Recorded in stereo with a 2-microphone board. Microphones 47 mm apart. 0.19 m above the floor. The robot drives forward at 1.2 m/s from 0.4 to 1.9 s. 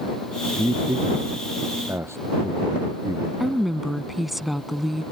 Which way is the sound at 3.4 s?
5° right (ahead or behind).